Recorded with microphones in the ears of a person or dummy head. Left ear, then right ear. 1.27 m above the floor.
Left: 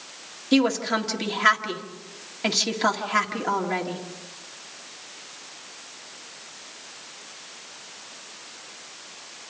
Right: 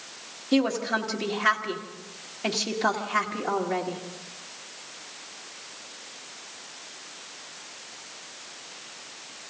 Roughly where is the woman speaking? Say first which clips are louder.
Left 3 dB; left.